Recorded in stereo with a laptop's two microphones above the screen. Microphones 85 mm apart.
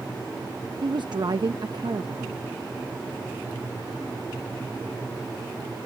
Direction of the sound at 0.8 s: 60° right (ahead or behind).